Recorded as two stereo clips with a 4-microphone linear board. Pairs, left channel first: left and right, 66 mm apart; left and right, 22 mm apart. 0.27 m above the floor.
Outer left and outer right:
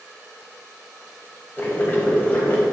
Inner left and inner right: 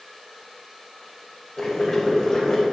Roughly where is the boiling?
Left.